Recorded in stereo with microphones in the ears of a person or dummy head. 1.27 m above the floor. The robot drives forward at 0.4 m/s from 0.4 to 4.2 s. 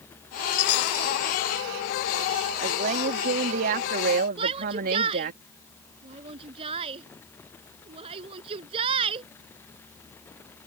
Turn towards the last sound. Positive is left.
turn(degrees=-30)  # may be behind; listen again after turning